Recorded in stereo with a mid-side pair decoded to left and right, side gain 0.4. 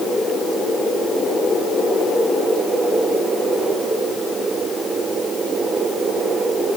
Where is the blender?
I don't hear a blender.